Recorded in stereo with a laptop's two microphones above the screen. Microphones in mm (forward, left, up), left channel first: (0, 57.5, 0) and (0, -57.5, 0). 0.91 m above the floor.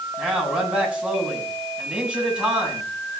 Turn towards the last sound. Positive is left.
turn(degrees=-10)  # may be behind; listen again after turning